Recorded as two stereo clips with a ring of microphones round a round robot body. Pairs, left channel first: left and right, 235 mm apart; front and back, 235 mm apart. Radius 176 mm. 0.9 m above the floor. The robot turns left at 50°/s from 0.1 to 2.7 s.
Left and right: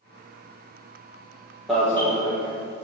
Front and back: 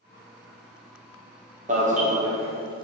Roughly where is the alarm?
Behind.